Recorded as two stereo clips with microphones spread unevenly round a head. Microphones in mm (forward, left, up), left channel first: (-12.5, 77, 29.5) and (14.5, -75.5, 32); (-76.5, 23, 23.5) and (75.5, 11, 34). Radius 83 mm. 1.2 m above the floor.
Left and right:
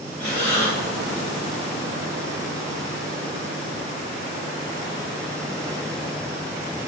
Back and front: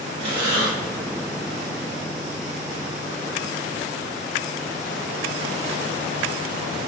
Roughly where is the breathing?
Ahead left.